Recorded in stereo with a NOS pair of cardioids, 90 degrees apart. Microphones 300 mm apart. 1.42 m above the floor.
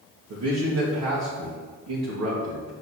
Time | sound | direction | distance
0.3 | a man speaking | 65° right | 1.8 m